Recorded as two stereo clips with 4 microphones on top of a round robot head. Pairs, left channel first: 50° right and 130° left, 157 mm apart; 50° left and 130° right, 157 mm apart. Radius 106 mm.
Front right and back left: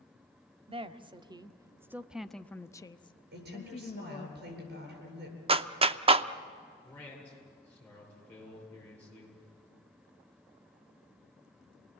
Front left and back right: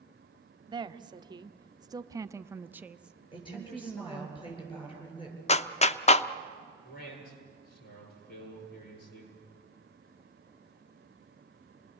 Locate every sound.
0.7 s a woman speaking: 175° left, 1.2 m; by 4.3 s 30° right, 1.2 m
3.3 s a woman speaking: 110° left, 9 m
5.5 s a clap: 85° left, 0.8 m
6.8 s a man speaking: 30° left, 10 m